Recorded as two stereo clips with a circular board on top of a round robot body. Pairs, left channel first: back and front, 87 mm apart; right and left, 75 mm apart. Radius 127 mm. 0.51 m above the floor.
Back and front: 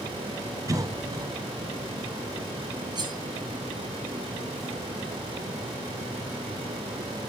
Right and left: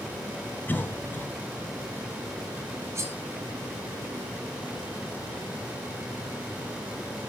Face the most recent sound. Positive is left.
turn(degrees=35)